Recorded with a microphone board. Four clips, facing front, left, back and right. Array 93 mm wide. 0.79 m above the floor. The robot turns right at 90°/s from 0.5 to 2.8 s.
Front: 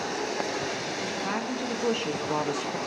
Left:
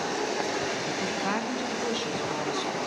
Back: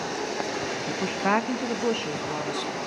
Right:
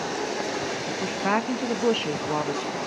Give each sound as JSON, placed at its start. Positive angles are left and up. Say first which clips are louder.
{"t": 0.9, "sound": "a woman speaking", "louder": "right 3 dB, back 6 dB", "azimuth_deg": 170, "distance_m": 0.8}